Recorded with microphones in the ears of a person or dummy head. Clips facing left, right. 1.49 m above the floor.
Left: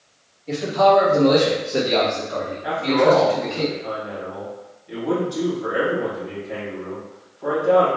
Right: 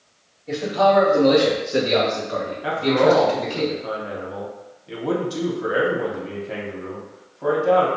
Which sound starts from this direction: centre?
A man speaking, at 0.5 s.